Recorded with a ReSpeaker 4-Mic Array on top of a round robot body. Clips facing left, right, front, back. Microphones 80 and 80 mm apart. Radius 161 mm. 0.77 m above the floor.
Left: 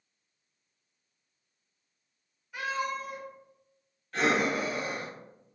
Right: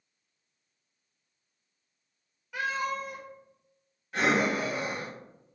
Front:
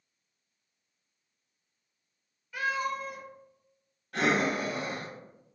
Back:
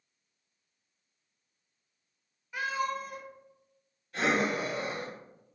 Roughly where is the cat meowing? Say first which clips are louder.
Right 1 dB, front 1 dB; right.